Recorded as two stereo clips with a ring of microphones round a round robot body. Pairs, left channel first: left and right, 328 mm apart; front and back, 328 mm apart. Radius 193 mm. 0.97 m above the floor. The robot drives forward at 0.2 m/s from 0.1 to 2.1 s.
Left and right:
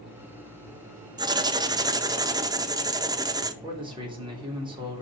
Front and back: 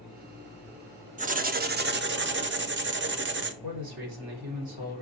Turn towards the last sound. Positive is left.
turn(degrees=-165)